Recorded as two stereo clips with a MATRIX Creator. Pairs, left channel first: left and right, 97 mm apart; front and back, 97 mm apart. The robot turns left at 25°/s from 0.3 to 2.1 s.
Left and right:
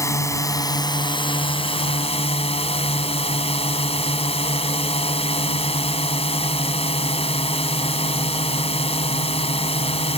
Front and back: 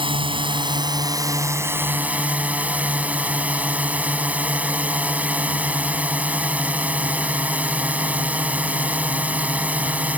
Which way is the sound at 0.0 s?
150° left.